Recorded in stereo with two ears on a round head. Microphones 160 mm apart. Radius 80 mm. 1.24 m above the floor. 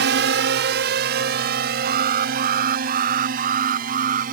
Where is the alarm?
45° right (ahead or behind).